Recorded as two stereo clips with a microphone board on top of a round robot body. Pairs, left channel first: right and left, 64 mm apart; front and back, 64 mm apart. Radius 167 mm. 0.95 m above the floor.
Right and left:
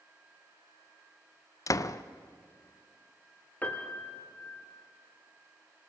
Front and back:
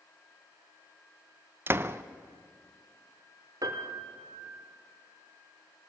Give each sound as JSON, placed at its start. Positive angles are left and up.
{"t": 1.7, "sound": "a door slam", "azimuth_deg": -130, "distance_m": 0.6}
{"t": 3.6, "sound": "a piano", "azimuth_deg": -155, "distance_m": 0.8}